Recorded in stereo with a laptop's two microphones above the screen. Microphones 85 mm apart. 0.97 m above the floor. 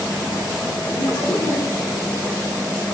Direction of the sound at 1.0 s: 30° left (ahead or behind).